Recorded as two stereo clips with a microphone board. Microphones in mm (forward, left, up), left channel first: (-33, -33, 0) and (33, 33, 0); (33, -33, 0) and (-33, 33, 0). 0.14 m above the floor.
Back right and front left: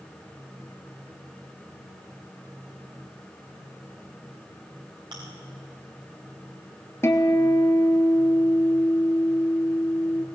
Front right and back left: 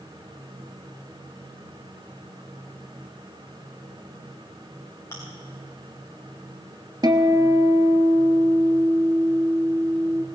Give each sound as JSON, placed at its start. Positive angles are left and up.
{"t": 5.1, "sound": "chewing", "azimuth_deg": 15, "distance_m": 5.5}
{"t": 7.0, "sound": "a guitar", "azimuth_deg": 165, "distance_m": 0.9}